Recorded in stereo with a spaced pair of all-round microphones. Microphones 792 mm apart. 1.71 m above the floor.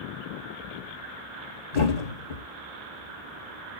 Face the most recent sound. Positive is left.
turn(degrees=55)  # may be behind; listen again after turning